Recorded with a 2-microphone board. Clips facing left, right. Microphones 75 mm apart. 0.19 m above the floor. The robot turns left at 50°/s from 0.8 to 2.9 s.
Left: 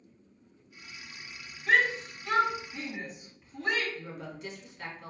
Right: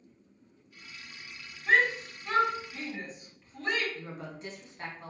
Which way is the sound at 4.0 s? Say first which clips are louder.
Even; 35° right (ahead or behind).